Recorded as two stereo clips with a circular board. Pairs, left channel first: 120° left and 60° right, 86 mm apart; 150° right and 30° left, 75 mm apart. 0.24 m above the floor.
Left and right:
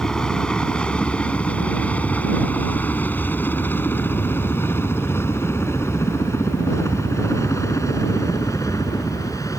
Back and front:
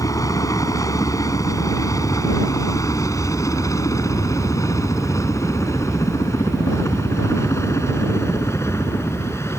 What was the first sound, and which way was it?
A helicopter, 160° right.